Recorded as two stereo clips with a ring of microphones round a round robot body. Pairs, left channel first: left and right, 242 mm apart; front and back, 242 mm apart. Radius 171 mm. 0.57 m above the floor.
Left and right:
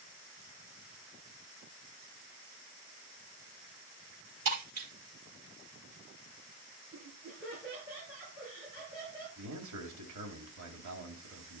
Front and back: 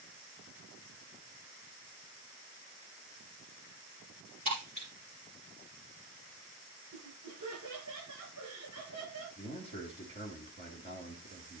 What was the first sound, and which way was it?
Breaking glass, 115° right.